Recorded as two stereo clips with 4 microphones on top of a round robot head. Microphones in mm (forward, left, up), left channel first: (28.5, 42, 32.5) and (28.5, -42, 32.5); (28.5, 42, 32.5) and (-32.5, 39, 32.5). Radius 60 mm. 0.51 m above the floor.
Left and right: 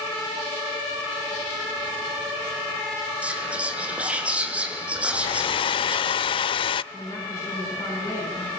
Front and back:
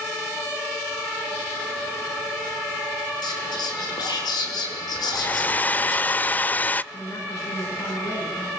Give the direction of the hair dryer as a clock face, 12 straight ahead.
10 o'clock.